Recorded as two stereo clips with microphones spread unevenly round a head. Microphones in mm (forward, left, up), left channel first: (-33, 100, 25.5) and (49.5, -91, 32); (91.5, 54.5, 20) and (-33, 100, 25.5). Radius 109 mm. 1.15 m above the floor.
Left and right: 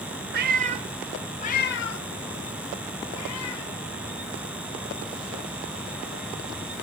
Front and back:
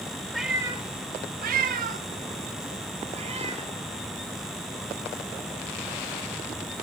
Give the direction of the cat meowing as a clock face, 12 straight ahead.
4 o'clock.